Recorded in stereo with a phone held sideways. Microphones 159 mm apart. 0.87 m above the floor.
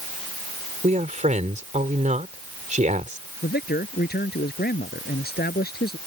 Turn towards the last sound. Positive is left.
turn(degrees=80)